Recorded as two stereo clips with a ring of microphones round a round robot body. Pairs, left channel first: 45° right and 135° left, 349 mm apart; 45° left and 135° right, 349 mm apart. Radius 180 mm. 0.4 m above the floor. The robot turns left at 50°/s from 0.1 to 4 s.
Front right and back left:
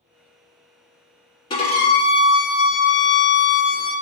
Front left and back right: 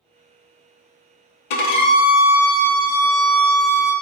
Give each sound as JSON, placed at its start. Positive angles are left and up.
{"t": 1.5, "sound": "a violin", "azimuth_deg": 35, "distance_m": 0.7}